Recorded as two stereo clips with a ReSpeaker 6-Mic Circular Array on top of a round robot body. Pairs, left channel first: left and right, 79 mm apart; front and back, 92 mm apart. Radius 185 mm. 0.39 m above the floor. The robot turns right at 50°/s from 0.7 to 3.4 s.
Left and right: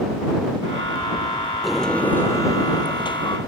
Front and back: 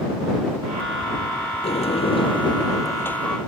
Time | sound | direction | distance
1.6 | a sliding door | 5° right | ?